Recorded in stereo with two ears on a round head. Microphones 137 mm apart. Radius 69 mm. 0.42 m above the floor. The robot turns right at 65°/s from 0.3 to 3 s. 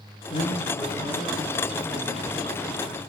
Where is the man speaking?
40° left, 5.5 m; by 3.0 s 145° right, 5.5 m.